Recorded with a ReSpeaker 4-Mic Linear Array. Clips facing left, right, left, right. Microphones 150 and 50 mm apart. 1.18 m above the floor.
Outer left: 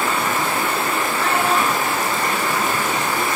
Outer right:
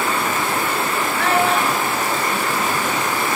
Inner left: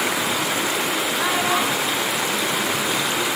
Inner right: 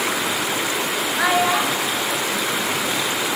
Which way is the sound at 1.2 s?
80° right.